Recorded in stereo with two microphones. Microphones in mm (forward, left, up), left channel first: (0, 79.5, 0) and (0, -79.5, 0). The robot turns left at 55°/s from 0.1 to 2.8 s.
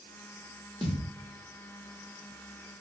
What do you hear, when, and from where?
0.8 s a thud: 35° right (ahead or behind), 1.0 m; by 1.1 s 45° right (ahead or behind), 1.0 m